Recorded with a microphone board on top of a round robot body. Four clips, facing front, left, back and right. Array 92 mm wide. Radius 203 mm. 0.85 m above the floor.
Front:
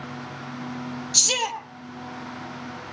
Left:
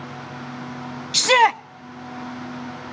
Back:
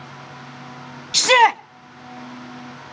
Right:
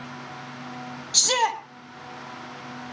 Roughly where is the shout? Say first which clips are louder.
Left 8 dB, back 16 dB; behind left.